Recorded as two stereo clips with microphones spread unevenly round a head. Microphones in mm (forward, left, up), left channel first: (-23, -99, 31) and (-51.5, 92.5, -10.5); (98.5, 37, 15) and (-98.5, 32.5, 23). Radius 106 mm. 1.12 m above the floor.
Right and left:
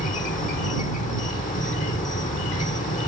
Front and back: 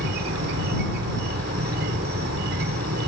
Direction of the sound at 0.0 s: 135° right.